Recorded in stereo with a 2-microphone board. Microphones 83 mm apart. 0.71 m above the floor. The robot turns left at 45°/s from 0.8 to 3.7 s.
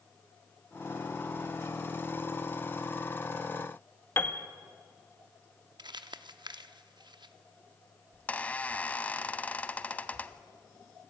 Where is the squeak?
20° left (ahead or behind), 0.6 m.